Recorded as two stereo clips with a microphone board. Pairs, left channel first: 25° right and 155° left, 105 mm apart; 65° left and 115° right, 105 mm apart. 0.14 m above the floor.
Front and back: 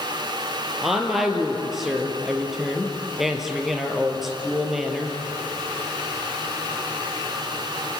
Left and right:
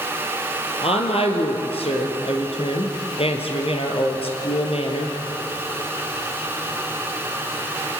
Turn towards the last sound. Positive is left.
turn(degrees=70)